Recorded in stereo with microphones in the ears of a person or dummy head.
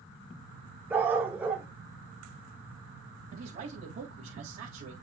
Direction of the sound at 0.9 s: 10° right (ahead or behind).